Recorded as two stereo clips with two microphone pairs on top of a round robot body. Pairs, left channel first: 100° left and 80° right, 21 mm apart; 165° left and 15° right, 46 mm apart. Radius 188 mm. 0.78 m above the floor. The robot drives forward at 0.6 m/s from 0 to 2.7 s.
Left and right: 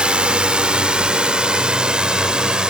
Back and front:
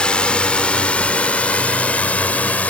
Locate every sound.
0.0 s a drone: 125° right; by 2.7 s 135° right